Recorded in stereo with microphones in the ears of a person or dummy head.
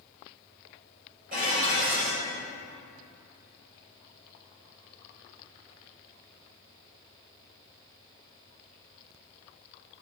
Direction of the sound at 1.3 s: 50° right (ahead or behind).